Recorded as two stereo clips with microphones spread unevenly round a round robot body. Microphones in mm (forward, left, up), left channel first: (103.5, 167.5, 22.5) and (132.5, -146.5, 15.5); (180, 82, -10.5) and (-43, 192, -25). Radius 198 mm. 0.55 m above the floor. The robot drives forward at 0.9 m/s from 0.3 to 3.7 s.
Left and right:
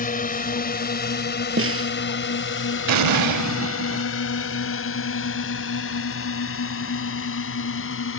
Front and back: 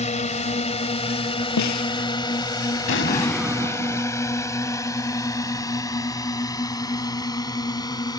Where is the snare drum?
35° right.